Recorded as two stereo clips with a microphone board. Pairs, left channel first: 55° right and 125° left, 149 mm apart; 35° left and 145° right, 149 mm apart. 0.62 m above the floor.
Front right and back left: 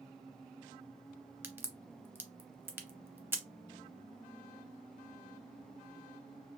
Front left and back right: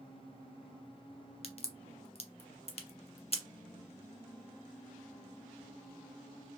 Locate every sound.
1.4 s a crack: 55° left, 0.5 m